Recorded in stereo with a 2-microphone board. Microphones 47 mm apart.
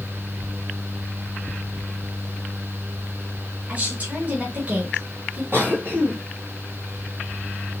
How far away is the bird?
No bird in this recording.